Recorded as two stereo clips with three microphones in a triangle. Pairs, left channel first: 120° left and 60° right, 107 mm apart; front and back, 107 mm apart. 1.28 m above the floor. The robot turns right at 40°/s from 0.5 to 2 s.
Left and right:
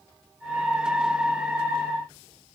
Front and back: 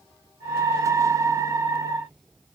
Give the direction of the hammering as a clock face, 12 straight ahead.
I don't hear hammering.